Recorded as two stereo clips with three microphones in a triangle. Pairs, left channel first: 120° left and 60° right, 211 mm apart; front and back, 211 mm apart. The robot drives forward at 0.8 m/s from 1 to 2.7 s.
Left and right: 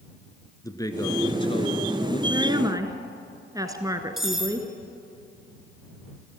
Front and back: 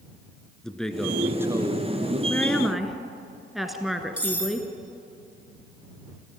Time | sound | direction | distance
0.6 | a man speaking | 85° left | 1.4 m
2.3 | a woman speaking | 60° right | 1.6 m
4.2 | cutlery clinking | 150° right | 2 m